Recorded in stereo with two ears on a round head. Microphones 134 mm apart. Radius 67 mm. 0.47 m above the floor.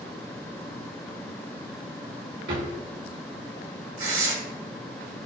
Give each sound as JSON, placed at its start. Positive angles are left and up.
{"t": 2.5, "sound": "a drawer", "side_deg": -80, "distance_m": 1.5}
{"t": 4.0, "sound": "tearing paper", "side_deg": -60, "distance_m": 2.0}